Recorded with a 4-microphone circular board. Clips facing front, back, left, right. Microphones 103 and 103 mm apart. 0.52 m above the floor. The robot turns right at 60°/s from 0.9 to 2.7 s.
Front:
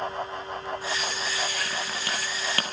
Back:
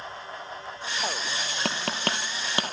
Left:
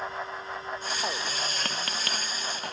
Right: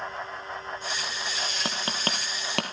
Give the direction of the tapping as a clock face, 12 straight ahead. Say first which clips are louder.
Back 3 dB, right 2 dB; 6 o'clock.